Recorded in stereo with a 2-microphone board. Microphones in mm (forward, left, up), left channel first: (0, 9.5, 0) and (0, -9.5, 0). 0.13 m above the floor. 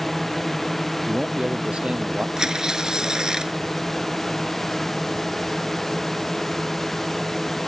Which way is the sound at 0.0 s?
10° left (ahead or behind).